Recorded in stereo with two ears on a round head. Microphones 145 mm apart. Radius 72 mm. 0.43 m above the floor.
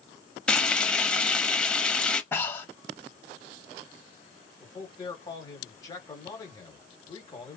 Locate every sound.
0.5 s frying: 5° left (ahead or behind), 0.6 m
2.3 s breathing: 15° left (ahead or behind), 1.1 m
4.6 s a man speaking: 25° left (ahead or behind), 1.1 m